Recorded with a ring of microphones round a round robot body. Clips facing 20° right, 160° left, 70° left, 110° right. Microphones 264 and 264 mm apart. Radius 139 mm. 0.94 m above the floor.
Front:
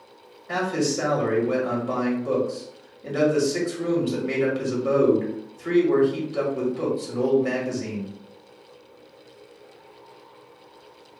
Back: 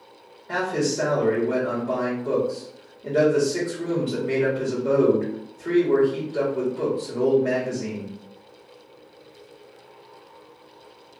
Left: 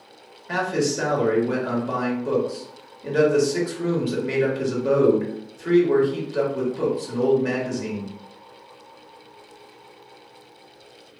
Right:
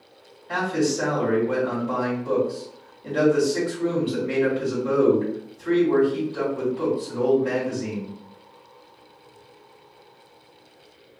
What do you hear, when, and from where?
0.5 s a man speaking: 50° left, 1.8 m